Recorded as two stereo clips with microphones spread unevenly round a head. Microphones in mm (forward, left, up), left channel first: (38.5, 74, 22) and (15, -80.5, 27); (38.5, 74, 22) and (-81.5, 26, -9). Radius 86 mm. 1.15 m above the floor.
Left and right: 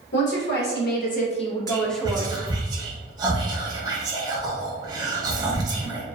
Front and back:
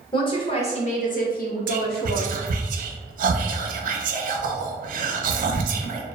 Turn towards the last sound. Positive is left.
turn(degrees=-170)